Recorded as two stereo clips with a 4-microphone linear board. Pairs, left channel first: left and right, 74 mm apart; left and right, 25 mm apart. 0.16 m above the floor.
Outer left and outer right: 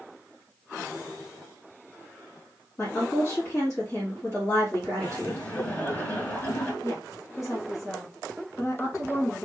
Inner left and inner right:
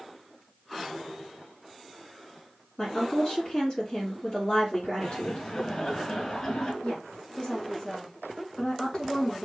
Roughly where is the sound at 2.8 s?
Left.